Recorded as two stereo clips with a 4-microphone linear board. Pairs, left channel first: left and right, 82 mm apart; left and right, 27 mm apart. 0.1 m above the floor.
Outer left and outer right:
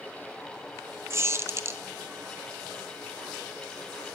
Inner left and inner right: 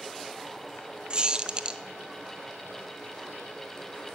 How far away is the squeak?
About 0.6 m.